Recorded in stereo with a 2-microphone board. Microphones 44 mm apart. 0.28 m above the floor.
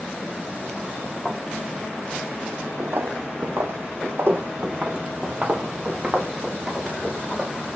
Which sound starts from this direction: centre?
A thud, at 1.2 s.